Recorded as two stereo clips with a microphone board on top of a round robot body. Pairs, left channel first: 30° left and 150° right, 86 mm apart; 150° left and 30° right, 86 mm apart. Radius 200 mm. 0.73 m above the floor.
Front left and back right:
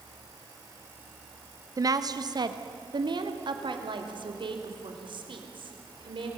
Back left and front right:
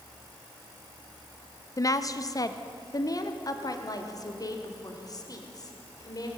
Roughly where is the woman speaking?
Behind.